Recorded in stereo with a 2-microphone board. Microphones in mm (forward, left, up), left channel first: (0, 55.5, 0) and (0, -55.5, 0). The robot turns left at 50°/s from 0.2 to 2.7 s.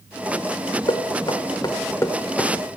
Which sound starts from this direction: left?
Knocking, at 0.9 s.